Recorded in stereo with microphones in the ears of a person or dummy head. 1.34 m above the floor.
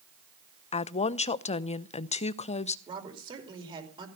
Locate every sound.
0.7 s a woman speaking: 30° left (ahead or behind), 0.6 m
2.9 s a woman speaking: 25° right (ahead or behind), 4.5 m